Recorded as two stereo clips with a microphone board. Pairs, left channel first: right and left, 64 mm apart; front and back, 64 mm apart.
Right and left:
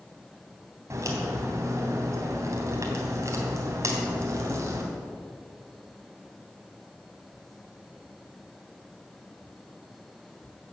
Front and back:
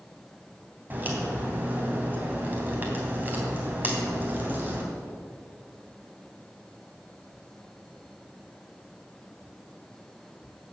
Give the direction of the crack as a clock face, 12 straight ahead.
8 o'clock.